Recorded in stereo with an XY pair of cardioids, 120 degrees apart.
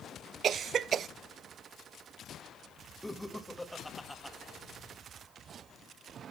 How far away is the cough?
About 0.5 m.